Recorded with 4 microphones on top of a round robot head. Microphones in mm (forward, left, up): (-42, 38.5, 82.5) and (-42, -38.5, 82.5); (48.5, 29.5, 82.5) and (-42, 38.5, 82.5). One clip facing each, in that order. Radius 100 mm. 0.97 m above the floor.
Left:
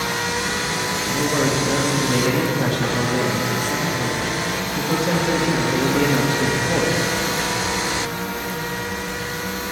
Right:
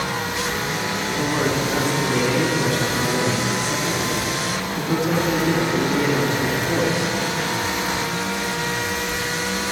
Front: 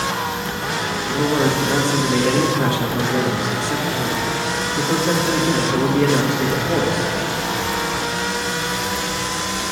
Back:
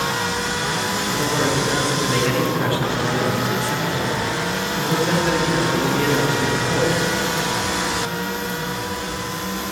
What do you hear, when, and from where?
1.1 s a man speaking: 60° left, 2 m